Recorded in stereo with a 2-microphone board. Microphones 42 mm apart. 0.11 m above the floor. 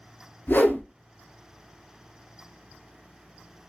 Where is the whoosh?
55° left (ahead or behind), 0.6 m.